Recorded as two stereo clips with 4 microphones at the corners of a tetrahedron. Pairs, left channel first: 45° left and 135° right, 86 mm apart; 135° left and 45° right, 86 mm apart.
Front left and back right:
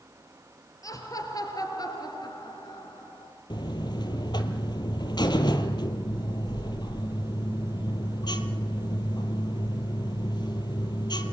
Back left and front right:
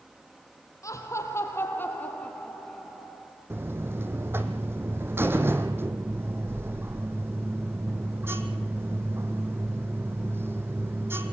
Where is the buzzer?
15° left, 1.6 m.